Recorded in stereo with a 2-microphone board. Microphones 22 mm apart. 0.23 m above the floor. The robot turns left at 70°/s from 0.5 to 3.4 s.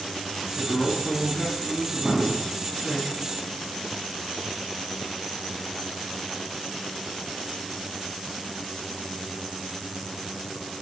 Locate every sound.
0.6 s a man speaking: 95° left, 2.5 m; by 3.0 s 80° right, 2.5 m
2.0 s an explosion: 45° right, 2 m; by 2.5 s 75° right, 2 m